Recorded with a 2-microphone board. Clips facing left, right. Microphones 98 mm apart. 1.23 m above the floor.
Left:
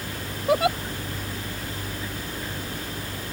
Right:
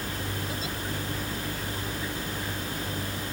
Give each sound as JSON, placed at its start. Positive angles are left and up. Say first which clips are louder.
{"t": 0.5, "sound": "a giggle", "louder": "left 14 dB", "side_deg": 75}